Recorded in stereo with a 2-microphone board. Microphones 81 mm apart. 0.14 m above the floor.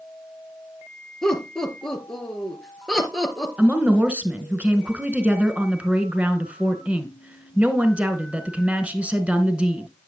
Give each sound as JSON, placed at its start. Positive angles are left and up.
{"t": 1.2, "sound": "laughter", "side_deg": 5, "distance_m": 2.5}
{"t": 3.6, "sound": "a woman speaking", "side_deg": -15, "distance_m": 1.3}